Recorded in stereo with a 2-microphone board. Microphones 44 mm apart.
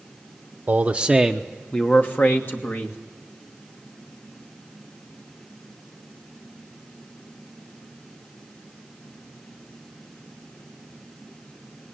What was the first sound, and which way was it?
A man speaking, 35° right (ahead or behind).